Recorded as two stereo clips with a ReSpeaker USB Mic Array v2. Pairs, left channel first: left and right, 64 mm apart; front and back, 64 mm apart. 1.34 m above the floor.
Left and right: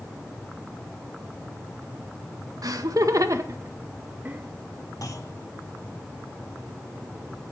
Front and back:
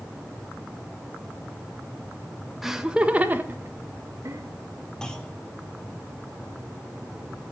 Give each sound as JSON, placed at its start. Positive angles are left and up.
{"t": 2.6, "sound": "laughter", "azimuth_deg": -95, "distance_m": 1.8}
{"t": 5.0, "sound": "a clunk", "azimuth_deg": 75, "distance_m": 2.0}